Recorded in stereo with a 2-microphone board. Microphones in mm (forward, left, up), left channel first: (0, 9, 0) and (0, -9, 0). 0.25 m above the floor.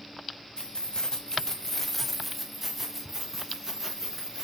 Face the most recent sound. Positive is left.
turn(degrees=-25)  # may be behind; listen again after turning